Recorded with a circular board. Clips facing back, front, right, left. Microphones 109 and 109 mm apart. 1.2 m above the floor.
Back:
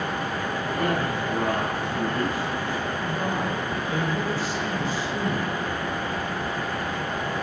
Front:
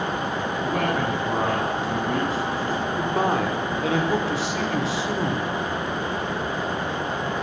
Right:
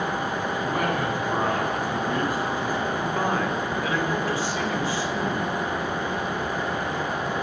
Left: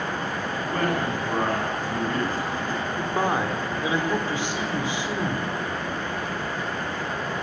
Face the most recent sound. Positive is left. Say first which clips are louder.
# front 5 dB, left 4 dB
turn(degrees=20)